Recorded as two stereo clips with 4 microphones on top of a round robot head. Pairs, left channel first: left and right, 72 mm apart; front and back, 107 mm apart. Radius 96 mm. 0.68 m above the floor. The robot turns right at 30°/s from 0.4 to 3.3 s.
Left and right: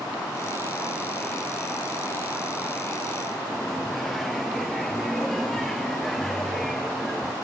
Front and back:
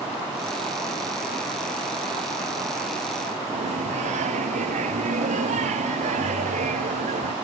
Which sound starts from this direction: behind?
Singing, at 3.5 s.